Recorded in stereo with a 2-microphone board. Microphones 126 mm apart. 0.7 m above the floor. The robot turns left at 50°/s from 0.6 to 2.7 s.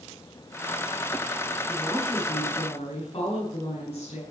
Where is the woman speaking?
Straight behind, 6 m; by 4.2 s 130° left, 6 m.